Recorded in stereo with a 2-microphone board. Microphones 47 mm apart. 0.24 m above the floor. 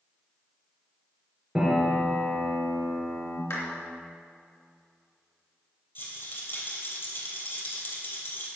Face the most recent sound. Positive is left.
turn(degrees=50)  # may be behind; listen again after turning